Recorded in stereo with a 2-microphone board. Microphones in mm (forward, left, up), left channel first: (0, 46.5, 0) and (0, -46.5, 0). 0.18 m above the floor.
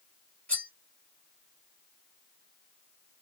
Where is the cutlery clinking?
15° left (ahead or behind), 1.9 m.